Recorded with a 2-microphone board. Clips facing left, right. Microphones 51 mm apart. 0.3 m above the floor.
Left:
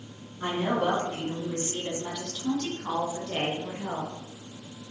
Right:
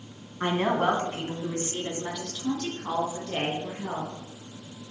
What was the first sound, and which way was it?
A woman speaking, 50° right (ahead or behind).